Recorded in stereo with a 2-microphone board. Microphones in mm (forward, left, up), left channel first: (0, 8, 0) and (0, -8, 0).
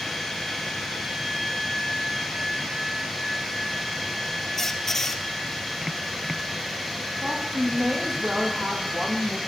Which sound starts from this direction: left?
A squeak, at 4.6 s.